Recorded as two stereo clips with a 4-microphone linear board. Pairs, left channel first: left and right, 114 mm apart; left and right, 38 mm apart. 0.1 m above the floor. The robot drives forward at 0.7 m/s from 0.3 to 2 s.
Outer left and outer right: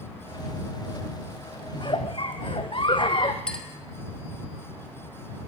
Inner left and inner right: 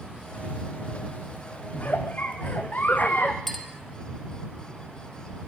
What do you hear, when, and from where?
1.7 s a giggle: 45° left (ahead or behind), 1.9 m
3.5 s a clink: 10° left (ahead or behind), 2.5 m